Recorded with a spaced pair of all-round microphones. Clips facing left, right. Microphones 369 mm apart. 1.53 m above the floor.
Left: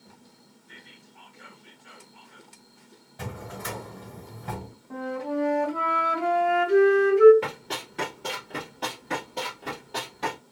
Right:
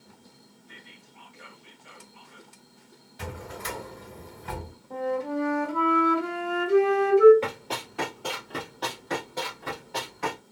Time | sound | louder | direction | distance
0.7 | whispering | left 1 dB | 40° left (ahead or behind) | 1.7 m
3.2 | a drawer | left 1 dB | 60° left (ahead or behind) | 2.5 m
4.9 | a flute | right 1 dB | 75° left (ahead or behind) | 2 m
7.4 | running footsteps | right 2 dB | 20° left (ahead or behind) | 1.8 m